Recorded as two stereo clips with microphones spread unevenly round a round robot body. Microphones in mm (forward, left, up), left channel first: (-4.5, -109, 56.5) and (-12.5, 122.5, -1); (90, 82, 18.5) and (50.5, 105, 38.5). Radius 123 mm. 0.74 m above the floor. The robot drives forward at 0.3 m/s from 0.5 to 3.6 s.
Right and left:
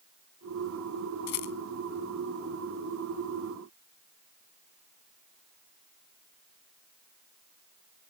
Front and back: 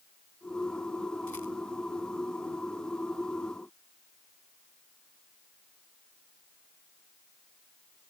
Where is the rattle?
100° right.